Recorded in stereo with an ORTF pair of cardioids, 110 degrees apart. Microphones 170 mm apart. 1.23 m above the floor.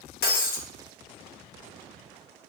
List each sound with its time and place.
0.2 s breaking glass: 65° left, 1.0 m